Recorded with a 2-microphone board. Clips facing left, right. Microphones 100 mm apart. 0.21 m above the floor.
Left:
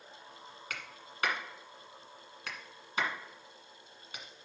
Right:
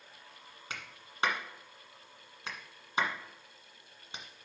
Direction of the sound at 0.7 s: 25° right (ahead or behind).